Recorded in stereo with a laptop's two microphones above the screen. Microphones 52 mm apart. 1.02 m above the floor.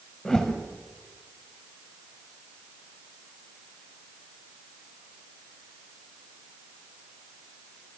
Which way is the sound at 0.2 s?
15° left (ahead or behind).